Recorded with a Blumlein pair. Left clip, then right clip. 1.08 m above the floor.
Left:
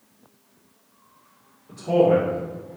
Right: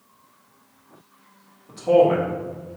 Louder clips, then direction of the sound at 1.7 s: Right 2 dB; 60° right.